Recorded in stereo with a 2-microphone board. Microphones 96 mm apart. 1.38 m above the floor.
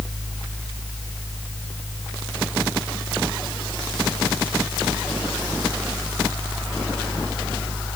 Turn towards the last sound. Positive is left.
No sound to turn to.